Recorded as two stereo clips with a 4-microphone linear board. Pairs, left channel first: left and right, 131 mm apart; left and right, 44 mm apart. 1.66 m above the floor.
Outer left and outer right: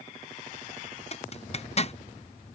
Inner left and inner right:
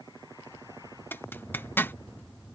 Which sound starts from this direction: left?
A zipper, at 1.1 s.